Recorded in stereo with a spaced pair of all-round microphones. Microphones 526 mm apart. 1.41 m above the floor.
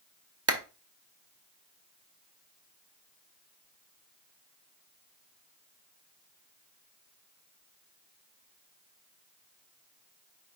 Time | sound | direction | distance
0.5 | a clap | 30° right (ahead or behind) | 0.6 m